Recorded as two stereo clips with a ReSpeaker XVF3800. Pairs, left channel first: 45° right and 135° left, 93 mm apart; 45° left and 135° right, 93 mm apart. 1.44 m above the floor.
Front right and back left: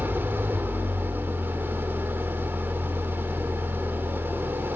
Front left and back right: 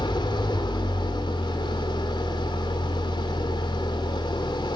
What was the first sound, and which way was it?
An engine running, 70° left.